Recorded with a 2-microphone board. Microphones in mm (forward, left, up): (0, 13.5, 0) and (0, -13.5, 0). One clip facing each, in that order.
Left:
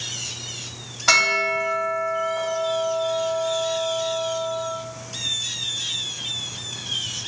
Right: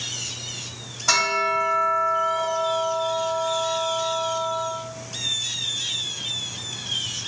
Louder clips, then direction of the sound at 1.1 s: Left 3 dB; 75° left (ahead or behind).